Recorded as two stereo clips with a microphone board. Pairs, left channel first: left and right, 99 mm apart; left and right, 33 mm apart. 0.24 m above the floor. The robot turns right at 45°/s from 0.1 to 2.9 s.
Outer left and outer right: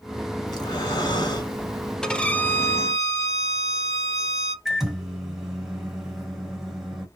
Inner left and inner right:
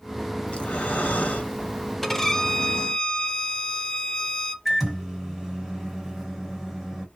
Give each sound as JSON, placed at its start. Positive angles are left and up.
{"t": 0.5, "sound": "breathing", "azimuth_deg": 65, "distance_m": 1.0}
{"t": 2.0, "sound": "a violin", "azimuth_deg": 10, "distance_m": 0.5}
{"t": 4.7, "sound": "a microwave", "side_deg": -5, "distance_m": 1.3}